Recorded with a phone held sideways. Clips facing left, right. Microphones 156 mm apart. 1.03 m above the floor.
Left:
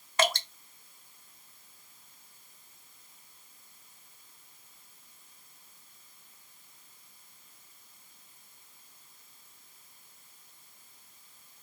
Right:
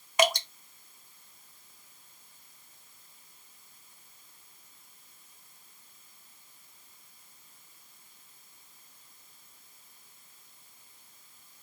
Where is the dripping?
15° right (ahead or behind), 0.6 m.